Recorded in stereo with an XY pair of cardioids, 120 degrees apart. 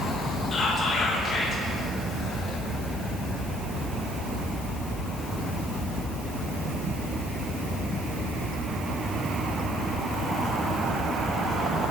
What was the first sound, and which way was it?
Whispering, 45° left.